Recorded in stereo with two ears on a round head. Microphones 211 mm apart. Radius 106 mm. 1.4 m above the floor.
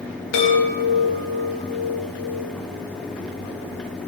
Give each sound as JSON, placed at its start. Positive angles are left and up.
{"t": 0.3, "sound": "a chime", "side_deg": 60, "distance_m": 2.0}